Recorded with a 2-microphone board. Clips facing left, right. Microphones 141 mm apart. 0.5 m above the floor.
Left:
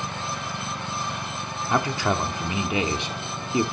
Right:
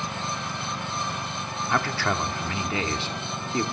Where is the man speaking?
20° left (ahead or behind), 1.2 m.